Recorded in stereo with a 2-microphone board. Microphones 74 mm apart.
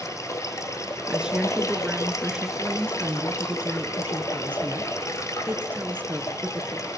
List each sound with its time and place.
0.0 s running water: 40° left (ahead or behind), 1.9 m
1.1 s a woman speaking: 10° right (ahead or behind), 1.6 m
2.6 s a woman speaking: 25° right (ahead or behind), 2.5 m